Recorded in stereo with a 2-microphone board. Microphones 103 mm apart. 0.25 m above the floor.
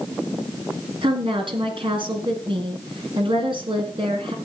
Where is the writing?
I don't hear writing.